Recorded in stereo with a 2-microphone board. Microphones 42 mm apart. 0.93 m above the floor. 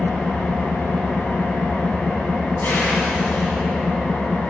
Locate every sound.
0.0 s an engine running: 45° left (ahead or behind), 2 m